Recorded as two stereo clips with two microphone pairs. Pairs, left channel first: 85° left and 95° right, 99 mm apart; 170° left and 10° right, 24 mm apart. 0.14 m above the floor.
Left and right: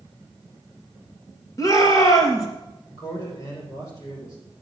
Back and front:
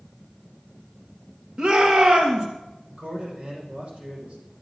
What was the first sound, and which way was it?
A shout, 40° left.